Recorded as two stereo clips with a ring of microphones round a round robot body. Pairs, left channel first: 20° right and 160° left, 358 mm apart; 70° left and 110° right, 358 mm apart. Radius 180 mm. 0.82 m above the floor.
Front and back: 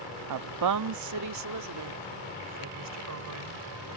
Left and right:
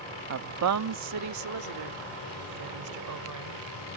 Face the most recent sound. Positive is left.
turn(degrees=-155)